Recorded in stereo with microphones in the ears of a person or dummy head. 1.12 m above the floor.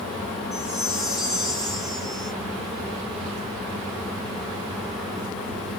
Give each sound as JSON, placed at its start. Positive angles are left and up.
{"t": 0.5, "sound": "a chime", "side_deg": 0, "distance_m": 2.0}